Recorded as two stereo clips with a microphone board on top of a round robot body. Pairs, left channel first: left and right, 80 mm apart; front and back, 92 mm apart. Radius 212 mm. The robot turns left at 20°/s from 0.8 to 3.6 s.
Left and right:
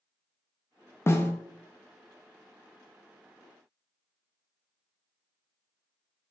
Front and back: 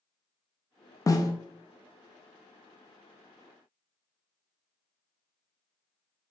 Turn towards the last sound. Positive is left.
turn(degrees=-10)